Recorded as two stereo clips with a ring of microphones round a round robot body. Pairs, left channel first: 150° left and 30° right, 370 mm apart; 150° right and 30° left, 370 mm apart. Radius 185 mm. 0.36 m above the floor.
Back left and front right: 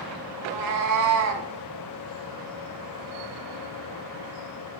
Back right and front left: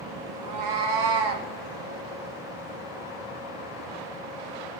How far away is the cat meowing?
About 1.9 m.